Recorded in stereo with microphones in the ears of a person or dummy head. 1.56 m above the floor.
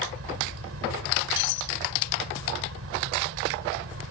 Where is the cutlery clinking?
65° left (ahead or behind).